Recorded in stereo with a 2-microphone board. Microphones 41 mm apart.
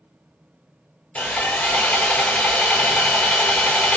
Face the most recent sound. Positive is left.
turn(degrees=40)  # may be behind; listen again after turning